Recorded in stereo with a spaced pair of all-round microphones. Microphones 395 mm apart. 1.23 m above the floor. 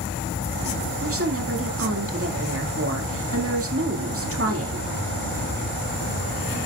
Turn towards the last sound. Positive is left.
turn(degrees=-35)  # may be behind; listen again after turning